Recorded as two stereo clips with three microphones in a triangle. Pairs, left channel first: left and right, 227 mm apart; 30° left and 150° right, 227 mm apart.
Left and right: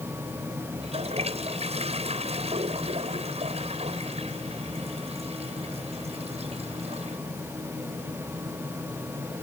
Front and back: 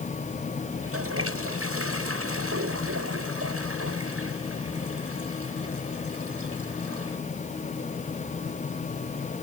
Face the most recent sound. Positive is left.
turn(degrees=-155)